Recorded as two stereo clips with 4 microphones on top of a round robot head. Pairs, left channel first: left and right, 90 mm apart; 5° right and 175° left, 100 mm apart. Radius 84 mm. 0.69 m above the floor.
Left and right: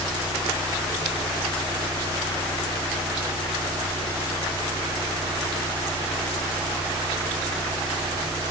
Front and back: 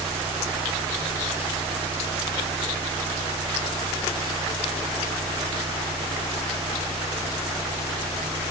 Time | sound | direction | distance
0.0 | an engine running | 145° right | 8 m